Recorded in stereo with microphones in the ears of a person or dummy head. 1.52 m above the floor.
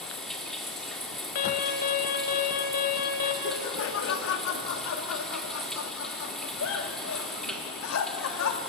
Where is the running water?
Centre (ahead or behind), 1.6 m.